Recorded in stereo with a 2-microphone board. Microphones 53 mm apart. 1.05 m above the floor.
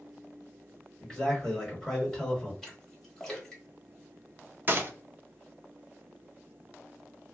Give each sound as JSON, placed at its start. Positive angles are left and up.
{"t": 1.0, "sound": "a man speaking", "side_deg": 5, "distance_m": 1.3}
{"t": 2.6, "sound": "a splash", "side_deg": 10, "distance_m": 1.1}
{"t": 4.7, "sound": "a gunshot", "side_deg": -35, "distance_m": 0.6}